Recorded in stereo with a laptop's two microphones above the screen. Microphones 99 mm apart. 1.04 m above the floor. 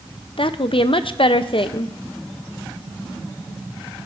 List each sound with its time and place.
0.4 s a woman speaking: 60° left (ahead or behind), 0.6 m